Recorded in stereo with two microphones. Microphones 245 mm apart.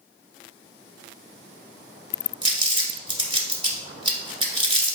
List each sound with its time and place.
2.4 s crumpling: 20° right (ahead or behind), 1.2 m